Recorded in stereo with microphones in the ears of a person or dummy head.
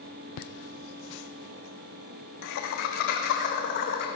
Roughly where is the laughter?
Left.